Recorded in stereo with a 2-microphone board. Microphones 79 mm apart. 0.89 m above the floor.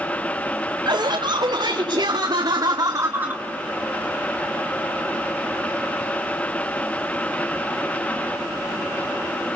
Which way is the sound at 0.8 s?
70° right (ahead or behind).